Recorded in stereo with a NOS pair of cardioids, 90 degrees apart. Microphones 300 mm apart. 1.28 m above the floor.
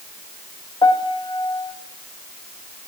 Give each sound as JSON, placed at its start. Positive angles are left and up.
{"t": 0.8, "sound": "a piano", "azimuth_deg": 15, "distance_m": 1.1}